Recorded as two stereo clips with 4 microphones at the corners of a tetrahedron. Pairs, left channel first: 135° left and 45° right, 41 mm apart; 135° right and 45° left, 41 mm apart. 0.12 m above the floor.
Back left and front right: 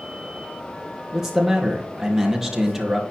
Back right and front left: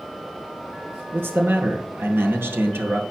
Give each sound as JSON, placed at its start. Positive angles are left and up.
{"t": 1.1, "sound": "a man speaking", "azimuth_deg": 35, "distance_m": 2.5}